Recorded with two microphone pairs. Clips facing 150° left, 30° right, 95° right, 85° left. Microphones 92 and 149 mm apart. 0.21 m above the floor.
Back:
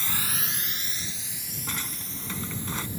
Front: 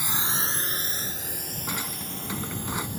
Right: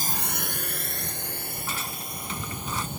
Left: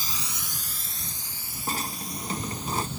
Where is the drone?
100° right; by 3.0 s 60° right.